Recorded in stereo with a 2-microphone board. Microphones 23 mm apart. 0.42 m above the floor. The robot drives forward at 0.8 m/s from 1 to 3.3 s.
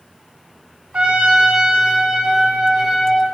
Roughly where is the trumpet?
Right.